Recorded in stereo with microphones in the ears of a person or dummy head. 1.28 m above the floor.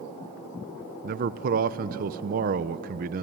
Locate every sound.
1.0 s a man speaking: 45° right (ahead or behind), 0.8 m